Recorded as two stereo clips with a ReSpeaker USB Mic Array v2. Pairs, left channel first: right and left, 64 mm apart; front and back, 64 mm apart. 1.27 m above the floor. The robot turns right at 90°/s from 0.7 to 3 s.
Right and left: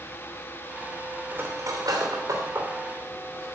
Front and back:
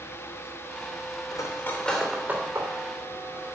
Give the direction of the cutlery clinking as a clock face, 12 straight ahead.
11 o'clock.